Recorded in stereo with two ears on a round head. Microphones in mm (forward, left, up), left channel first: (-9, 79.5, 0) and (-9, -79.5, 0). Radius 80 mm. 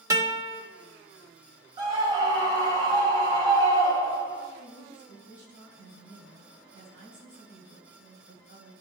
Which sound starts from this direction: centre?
A guitar, at 0.1 s.